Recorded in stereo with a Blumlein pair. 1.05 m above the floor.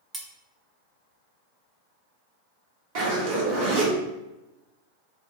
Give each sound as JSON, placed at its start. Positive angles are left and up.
{"t": 0.1, "sound": "cutlery clinking", "azimuth_deg": -15, "distance_m": 0.5}
{"t": 3.0, "sound": "a zipper", "azimuth_deg": -45, "distance_m": 0.9}